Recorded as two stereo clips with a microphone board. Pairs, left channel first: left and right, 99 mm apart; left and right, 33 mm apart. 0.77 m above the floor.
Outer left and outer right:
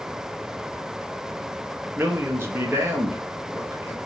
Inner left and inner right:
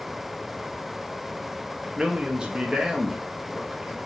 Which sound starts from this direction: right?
A man speaking, at 2.0 s.